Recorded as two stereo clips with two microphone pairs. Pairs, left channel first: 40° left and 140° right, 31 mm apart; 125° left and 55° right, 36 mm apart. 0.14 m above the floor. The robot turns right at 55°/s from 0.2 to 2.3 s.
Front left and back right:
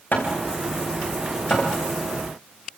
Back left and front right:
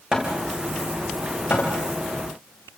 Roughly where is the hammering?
Ahead.